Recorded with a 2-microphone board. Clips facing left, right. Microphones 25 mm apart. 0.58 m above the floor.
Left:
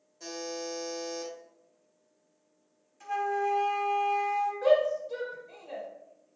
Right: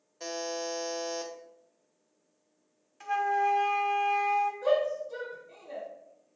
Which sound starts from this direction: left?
A shout, at 4.6 s.